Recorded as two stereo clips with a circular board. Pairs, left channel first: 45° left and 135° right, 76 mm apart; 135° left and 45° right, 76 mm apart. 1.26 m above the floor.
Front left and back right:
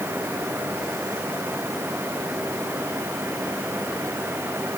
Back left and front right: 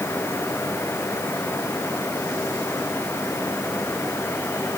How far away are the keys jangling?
I don't hear keys jangling.